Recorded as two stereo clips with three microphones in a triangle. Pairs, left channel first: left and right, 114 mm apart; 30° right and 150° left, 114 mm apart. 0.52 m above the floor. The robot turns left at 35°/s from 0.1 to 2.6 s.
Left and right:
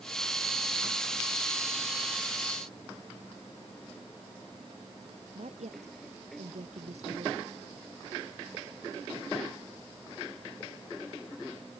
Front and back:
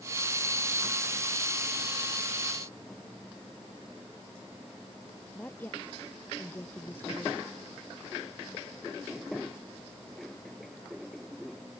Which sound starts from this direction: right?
A woman speaking, at 5.3 s.